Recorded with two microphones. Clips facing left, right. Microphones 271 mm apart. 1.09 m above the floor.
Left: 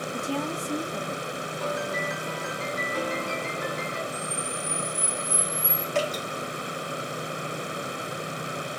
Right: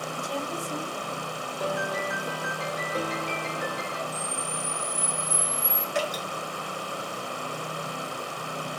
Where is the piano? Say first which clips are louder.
Right 1 dB; 60° right (ahead or behind), 1.4 m.